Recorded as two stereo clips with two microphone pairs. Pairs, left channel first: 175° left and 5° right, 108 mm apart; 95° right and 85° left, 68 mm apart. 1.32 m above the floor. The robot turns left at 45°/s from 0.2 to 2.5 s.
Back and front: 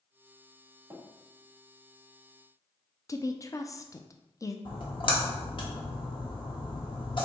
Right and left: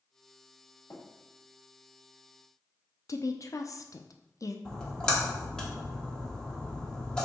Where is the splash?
170° right, 1.1 m.